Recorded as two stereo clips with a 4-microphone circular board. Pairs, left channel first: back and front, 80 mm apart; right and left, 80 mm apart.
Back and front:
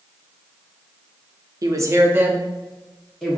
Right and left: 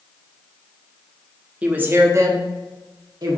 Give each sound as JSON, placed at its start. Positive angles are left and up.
{"t": 1.6, "sound": "a woman speaking", "azimuth_deg": 20, "distance_m": 0.7}